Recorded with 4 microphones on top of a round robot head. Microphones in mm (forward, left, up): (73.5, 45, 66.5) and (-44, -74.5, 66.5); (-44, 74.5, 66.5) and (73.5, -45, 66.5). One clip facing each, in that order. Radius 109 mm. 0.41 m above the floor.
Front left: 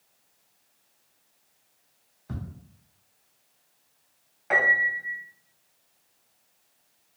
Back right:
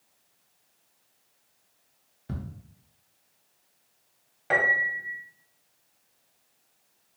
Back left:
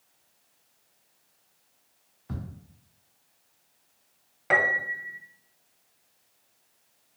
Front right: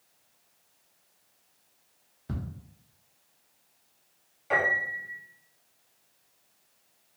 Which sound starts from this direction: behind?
A piano, at 4.5 s.